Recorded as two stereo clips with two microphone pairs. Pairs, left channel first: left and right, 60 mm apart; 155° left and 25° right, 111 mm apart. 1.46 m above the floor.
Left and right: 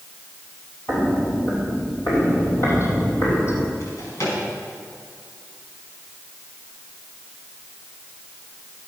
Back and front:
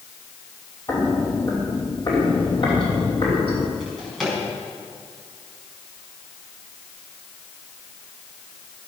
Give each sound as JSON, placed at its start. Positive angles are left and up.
{"t": 0.9, "sound": "footsteps", "azimuth_deg": 115, "distance_m": 2.5}
{"t": 3.8, "sound": "a drawer", "azimuth_deg": 70, "distance_m": 5.0}